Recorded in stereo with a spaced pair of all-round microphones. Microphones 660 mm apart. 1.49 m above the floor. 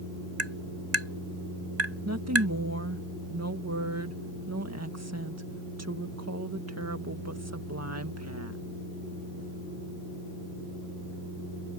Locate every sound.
0.4 s tapping: 80° right
2.0 s a woman speaking: 25° right (ahead or behind)